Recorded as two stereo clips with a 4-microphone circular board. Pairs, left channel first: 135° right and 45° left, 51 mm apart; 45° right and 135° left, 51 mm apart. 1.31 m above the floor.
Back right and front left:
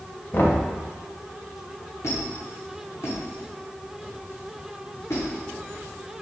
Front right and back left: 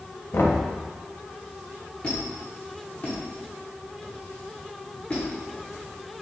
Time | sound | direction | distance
0.3 | knocking | 85° right | 1.1 m
2.0 | a squeak | 110° right | 2 m